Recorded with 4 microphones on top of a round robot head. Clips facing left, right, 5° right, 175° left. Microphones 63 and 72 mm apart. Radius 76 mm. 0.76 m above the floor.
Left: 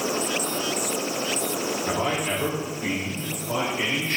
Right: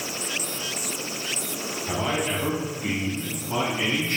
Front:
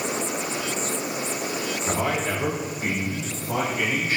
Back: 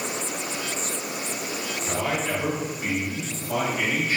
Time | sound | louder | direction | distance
1.9 | a man speaking | right 1 dB, front 1 dB | 60° left | 2.5 m